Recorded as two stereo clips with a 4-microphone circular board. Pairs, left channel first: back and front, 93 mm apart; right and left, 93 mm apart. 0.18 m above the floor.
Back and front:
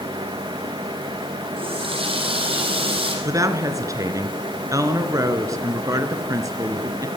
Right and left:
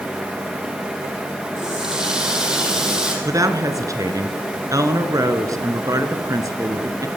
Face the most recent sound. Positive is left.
turn(degrees=45)